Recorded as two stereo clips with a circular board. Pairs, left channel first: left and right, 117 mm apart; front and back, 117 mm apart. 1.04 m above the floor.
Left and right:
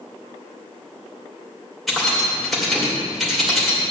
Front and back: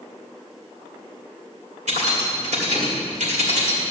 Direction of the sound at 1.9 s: Straight behind.